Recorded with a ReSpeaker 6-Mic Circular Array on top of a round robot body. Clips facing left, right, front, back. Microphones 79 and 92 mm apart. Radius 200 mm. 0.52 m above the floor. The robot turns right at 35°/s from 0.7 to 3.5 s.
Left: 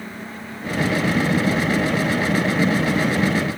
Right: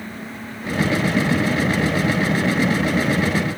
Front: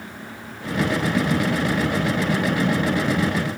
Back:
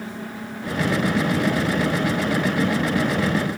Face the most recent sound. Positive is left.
No sound to turn to.